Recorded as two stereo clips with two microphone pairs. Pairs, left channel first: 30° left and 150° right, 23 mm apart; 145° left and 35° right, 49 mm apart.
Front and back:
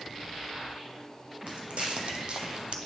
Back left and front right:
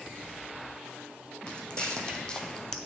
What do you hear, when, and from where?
1.5 s footsteps: 145° right, 1.4 m